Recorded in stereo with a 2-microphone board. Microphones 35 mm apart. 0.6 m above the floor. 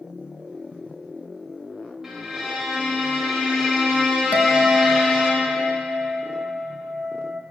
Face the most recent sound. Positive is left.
turn(degrees=-50)  # may be behind; listen again after turning